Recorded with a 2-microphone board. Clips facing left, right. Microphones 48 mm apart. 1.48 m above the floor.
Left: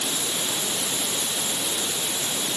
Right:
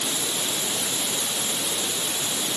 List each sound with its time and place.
Only background noise.